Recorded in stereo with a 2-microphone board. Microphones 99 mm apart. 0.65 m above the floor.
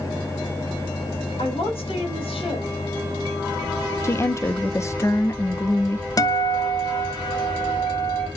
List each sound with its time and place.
1.4 s a woman speaking: 80° left, 4.5 m
4.0 s a woman speaking: 30° left (ahead or behind), 0.8 m
6.2 s a guitar: 40° left (ahead or behind), 0.6 m